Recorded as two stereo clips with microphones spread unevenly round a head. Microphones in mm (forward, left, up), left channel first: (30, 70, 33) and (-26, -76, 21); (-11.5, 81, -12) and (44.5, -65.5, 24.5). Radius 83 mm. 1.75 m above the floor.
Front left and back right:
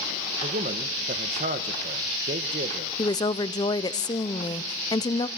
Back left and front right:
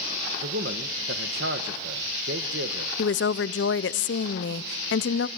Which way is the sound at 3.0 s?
130° left.